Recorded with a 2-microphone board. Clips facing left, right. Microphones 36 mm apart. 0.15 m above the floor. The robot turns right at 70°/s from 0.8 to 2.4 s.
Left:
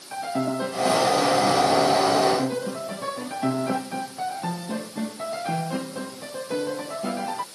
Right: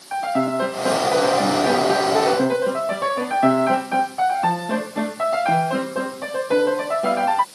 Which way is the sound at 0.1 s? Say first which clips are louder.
Right 6 dB; 155° right.